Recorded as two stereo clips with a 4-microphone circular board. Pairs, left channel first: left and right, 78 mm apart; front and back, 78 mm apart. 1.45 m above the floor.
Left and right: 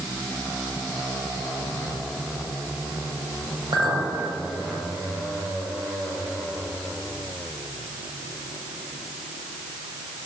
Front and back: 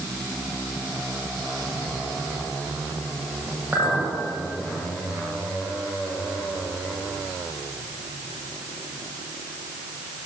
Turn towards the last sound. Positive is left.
turn(degrees=-110)